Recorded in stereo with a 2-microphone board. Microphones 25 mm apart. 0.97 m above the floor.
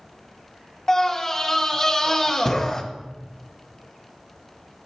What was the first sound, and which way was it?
A scream, 15° left (ahead or behind).